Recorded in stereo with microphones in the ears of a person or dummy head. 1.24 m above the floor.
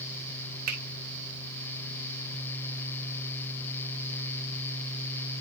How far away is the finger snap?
About 2 m.